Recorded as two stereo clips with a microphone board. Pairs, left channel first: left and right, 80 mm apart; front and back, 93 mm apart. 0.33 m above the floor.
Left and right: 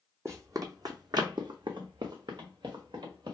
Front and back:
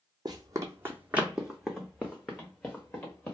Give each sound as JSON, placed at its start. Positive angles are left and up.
{"t": 0.2, "sound": "running footsteps", "azimuth_deg": -140, "distance_m": 0.8}